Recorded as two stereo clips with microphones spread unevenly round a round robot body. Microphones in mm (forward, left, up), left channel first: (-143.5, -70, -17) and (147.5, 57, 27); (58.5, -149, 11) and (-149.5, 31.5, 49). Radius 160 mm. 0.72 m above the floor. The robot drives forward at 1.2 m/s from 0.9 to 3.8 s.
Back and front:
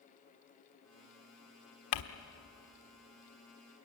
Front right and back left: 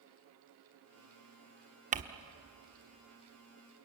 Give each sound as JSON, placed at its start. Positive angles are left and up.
{"t": 1.9, "sound": "crumpling", "azimuth_deg": -155, "distance_m": 1.4}